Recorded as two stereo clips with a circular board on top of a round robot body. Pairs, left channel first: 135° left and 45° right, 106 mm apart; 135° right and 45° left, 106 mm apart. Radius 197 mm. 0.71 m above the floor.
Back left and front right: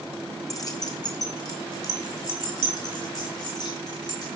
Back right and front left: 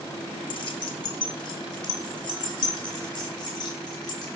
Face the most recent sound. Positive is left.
turn(degrees=175)